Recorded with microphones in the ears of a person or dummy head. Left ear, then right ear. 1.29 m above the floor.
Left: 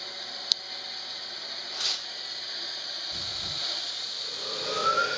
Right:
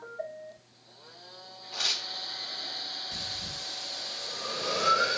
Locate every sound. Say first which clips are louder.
1.7 s tearing paper: right 2 dB; 20° right (ahead or behind), 2 m
3.1 s breathing: left 3 dB; 20° right (ahead or behind), 1.7 m